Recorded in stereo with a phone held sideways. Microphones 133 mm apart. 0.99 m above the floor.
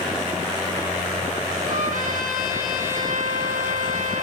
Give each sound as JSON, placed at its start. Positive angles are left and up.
{"t": 1.6, "sound": "a trumpet", "side_deg": -75, "distance_m": 6.5}